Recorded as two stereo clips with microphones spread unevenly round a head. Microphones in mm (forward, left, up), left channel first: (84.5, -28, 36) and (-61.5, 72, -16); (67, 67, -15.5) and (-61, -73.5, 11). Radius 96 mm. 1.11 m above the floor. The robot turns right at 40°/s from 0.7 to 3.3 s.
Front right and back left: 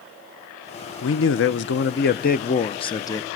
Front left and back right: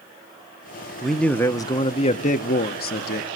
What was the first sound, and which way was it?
A man speaking, 40° right.